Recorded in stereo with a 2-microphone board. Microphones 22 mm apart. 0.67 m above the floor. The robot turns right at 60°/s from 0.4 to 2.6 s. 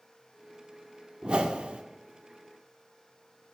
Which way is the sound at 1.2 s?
125° right.